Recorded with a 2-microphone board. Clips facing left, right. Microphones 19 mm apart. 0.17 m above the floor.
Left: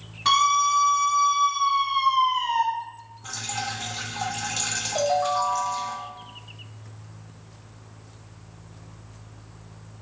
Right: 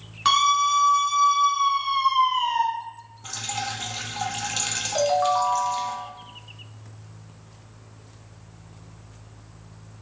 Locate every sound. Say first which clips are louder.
0.2 s a scream: even; 45° right (ahead or behind), 2.0 m
3.2 s dripping: right 1 dB; 25° right (ahead or behind), 0.7 m
5.0 s a ringtone: right 2 dB; 40° right (ahead or behind), 1.0 m